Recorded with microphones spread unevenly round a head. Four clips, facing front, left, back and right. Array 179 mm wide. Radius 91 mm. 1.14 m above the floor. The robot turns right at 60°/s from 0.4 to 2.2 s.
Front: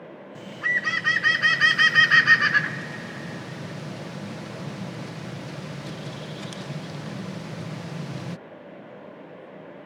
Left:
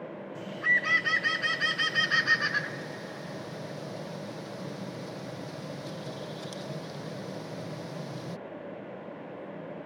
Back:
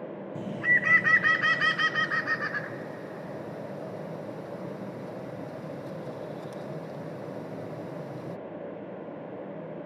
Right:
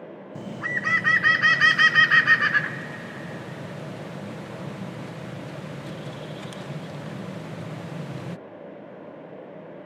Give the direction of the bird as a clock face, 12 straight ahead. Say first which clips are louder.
Left 1 dB, back 1 dB; 5 o'clock.